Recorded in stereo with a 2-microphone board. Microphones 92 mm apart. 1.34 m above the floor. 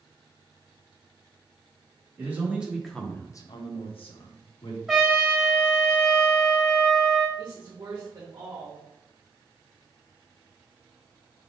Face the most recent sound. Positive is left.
turn(degrees=-40)  # may be behind; listen again after turning